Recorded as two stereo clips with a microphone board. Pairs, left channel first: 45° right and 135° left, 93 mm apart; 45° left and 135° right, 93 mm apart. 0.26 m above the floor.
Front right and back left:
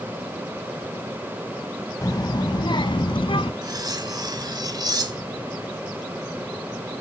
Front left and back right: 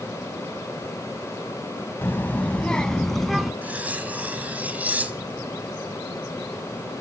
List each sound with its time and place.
2.0 s a child speaking: 15° right, 0.8 m; by 3.5 s 45° right, 1.4 m
3.6 s cutlery clinking: 155° left, 1.1 m